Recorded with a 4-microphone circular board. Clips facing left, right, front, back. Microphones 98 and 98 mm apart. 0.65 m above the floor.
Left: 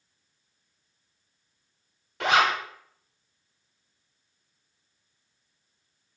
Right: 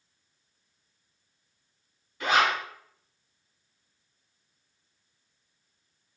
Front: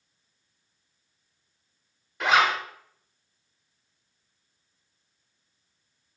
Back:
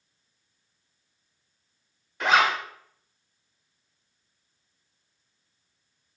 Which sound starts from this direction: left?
A zipper, at 2.2 s.